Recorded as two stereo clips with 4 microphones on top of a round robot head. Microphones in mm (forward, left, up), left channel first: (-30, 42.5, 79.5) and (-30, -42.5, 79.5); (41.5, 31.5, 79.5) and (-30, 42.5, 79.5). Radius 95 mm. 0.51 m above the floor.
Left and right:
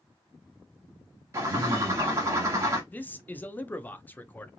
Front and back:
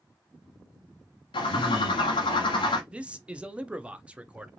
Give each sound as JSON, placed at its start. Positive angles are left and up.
{"t": 1.3, "sound": "a bird", "azimuth_deg": -30, "distance_m": 1.0}
{"t": 2.9, "sound": "a man speaking", "azimuth_deg": 120, "distance_m": 0.7}